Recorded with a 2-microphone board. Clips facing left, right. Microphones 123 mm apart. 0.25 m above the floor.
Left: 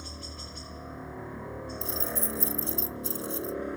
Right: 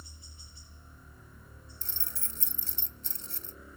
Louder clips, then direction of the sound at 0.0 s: Left 14 dB; 65° left (ahead or behind).